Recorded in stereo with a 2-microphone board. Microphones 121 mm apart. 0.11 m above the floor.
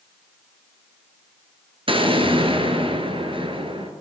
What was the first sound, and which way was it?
An explosion, 45° right (ahead or behind).